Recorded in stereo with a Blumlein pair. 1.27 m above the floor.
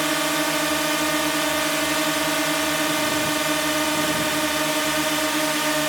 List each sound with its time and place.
0.0 s a drone: 5° right